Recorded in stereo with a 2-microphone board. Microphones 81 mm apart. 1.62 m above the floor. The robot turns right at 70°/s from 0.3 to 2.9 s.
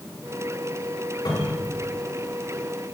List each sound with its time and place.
1.2 s a cupboard door: 60° left (ahead or behind), 6.5 m; by 1.7 s 80° left, 6.5 m